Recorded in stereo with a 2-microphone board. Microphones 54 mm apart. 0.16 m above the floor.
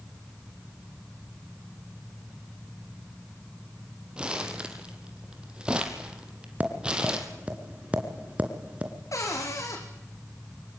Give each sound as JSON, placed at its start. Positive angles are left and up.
{"t": 4.2, "sound": "crumpling", "side_deg": -20, "distance_m": 2.5}
{"t": 6.6, "sound": "tapping", "side_deg": -25, "distance_m": 2.0}
{"t": 9.1, "sound": "a cupboard door", "side_deg": 70, "distance_m": 4.5}